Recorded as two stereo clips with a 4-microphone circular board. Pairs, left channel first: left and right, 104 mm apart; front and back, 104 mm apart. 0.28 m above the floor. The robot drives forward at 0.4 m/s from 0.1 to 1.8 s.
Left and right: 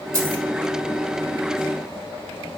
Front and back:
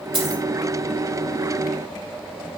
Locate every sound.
0.1 s a dropped coin: 150° right, 4 m